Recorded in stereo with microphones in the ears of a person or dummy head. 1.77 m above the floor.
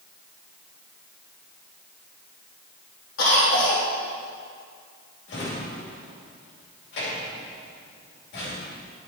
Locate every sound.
3.2 s a cough: 85° left, 2 m
5.3 s a drawer: 60° left (ahead or behind), 3 m